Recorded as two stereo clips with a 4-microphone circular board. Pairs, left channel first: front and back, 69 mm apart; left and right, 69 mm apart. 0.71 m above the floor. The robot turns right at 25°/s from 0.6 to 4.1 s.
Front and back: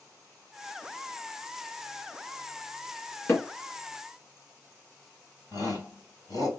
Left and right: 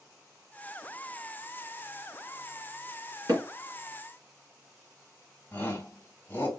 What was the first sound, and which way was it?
Hammering, 55° right.